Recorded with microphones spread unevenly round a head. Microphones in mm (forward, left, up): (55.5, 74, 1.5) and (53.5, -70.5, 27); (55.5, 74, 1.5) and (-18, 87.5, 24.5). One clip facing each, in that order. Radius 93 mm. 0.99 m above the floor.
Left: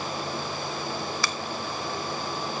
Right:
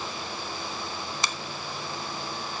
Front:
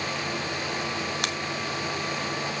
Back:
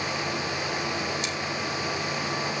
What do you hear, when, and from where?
1.2 s a finger snap: 20° right, 1.1 m